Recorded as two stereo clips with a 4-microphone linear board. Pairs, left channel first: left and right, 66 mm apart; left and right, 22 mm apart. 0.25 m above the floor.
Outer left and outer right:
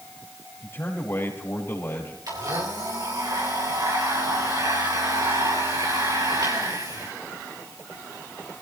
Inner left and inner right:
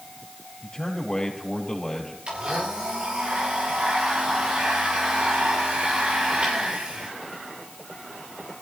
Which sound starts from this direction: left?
A man speaking, at 0.6 s.